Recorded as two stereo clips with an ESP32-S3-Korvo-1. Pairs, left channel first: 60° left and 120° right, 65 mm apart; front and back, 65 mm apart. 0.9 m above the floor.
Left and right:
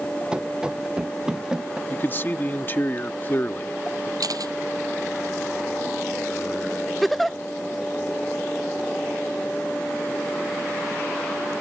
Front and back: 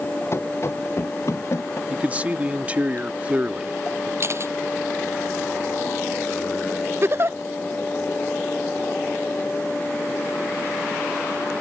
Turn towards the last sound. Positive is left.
turn(degrees=145)